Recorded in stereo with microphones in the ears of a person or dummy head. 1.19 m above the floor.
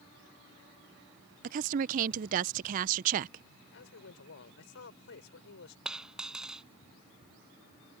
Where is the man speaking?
65° left (ahead or behind).